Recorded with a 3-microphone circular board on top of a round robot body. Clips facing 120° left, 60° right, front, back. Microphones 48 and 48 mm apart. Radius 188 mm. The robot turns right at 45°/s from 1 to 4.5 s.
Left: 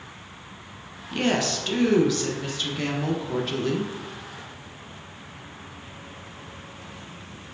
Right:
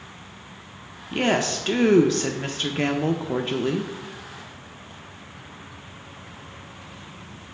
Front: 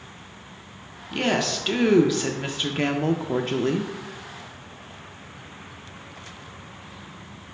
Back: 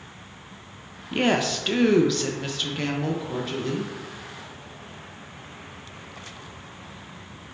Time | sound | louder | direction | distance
1.1 | a woman speaking | right 2 dB, back 1 dB | 120° right | 0.5 m